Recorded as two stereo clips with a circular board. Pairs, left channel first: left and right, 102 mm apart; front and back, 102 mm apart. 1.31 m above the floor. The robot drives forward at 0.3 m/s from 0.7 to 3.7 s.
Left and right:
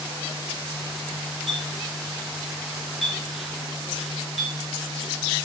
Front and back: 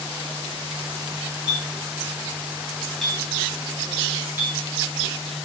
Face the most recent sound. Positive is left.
turn(degrees=175)